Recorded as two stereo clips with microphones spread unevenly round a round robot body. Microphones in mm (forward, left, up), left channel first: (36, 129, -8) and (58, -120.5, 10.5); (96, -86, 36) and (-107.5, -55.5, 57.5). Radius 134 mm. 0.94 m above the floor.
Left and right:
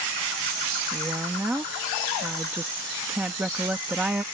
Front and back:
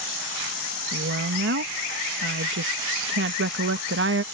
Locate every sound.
0.9 s a woman speaking: 170° right